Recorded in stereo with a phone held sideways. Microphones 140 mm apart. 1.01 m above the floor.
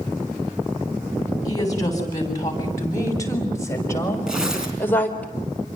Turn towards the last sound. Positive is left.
turn(degrees=-5)  # may be behind; listen again after turning